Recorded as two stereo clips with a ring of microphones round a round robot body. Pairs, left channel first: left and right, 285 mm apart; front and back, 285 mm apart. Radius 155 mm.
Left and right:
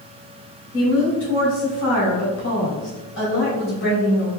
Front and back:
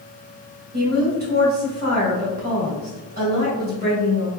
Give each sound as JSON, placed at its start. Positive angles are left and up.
{"t": 0.7, "sound": "a woman speaking", "azimuth_deg": 135, "distance_m": 1.9}